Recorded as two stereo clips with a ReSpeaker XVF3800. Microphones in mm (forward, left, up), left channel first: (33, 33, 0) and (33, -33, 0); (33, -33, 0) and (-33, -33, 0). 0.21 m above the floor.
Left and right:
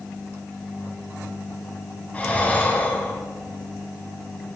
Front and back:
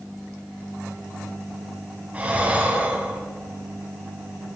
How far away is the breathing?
About 1.6 m.